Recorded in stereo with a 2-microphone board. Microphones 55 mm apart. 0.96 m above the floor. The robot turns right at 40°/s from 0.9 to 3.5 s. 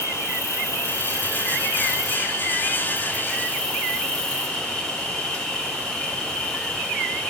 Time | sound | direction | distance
0.0 | an insect | 60° left | 1.1 m